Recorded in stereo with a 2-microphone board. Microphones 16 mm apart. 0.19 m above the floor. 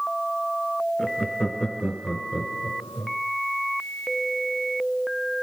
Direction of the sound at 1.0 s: 45° left (ahead or behind).